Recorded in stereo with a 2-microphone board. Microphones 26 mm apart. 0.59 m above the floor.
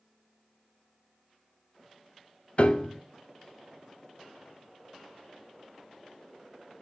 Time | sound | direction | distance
2.6 | a piano | 45° left (ahead or behind) | 0.5 m